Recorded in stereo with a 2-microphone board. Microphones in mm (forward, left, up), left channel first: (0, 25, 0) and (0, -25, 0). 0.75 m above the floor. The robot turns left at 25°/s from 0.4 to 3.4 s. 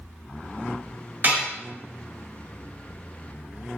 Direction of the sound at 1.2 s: 50° right (ahead or behind).